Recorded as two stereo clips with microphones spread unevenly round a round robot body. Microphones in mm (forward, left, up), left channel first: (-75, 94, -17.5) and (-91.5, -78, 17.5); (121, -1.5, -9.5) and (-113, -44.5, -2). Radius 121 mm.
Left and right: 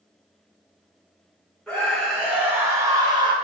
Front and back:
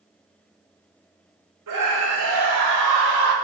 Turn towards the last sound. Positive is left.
turn(degrees=-160)